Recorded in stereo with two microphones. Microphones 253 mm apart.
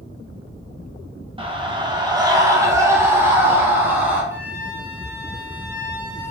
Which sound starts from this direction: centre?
A flute, at 4.3 s.